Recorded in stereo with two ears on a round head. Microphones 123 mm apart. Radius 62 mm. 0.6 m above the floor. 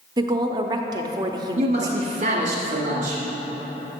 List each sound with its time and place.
0.2 s a woman speaking: 30° right (ahead or behind), 0.6 m
1.6 s a man speaking: 50° right (ahead or behind), 1.3 m